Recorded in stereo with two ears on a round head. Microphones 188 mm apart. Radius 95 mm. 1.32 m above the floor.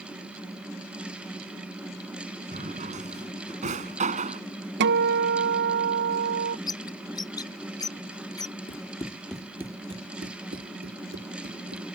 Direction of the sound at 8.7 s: 25° left (ahead or behind).